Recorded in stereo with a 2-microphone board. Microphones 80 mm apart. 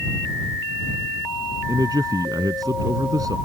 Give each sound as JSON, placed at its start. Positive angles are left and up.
{"t": 1.7, "sound": "a man speaking", "side_deg": -55}